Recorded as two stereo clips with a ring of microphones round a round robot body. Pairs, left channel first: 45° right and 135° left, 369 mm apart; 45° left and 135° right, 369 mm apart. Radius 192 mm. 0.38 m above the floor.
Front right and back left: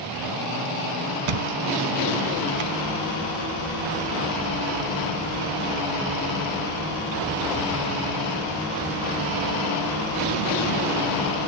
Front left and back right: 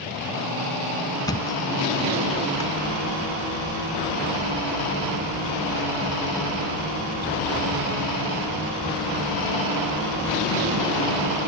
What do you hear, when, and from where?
1.2 s a thud: 125° left, 1.3 m